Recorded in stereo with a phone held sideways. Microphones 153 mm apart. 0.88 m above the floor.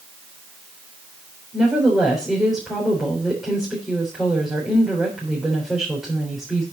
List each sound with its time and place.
1.5 s a woman speaking: centre (ahead or behind), 3.5 m